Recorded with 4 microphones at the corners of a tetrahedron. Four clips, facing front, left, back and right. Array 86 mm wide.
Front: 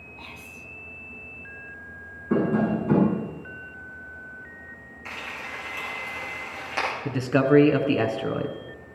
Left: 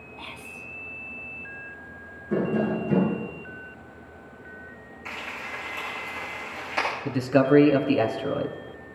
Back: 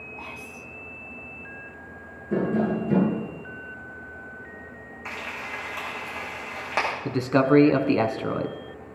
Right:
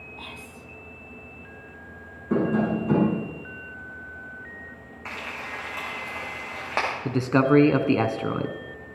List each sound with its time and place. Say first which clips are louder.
0.2 s whispering: left 4 dB, back 1 dB; straight behind, 1.0 m
2.3 s tapping: right 2 dB, front 1 dB; 35° right, 7.5 m
5.0 s frying: right 1 dB, back 1 dB; 130° right, 7 m
7.0 s a man speaking: even, even; 120° right, 1.5 m